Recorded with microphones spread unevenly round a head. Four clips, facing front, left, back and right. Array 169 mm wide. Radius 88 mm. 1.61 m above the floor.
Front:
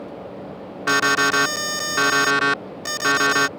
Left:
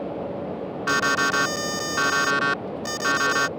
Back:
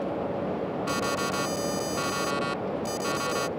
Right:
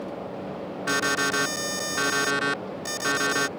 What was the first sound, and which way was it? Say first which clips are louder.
An alarm: left 3 dB, front 13 dB; straight ahead.